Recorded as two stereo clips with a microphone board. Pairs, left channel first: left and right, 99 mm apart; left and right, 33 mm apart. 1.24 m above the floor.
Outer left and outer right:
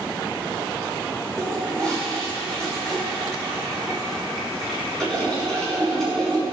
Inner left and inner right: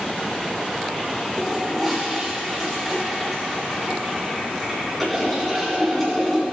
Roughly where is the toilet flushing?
Centre.